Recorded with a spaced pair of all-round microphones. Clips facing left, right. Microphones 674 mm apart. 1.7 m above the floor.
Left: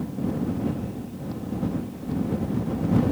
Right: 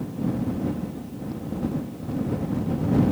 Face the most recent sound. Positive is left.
No sound to turn to.